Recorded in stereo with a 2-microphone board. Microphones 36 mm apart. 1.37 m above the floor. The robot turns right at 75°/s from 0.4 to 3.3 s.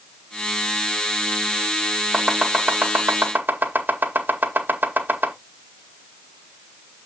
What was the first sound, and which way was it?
Chopping, centre (ahead or behind).